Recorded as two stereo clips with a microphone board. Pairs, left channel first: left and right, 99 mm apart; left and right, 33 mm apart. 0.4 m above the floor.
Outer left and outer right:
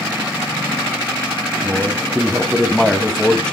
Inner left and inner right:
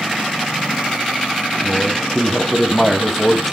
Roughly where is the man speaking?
Centre.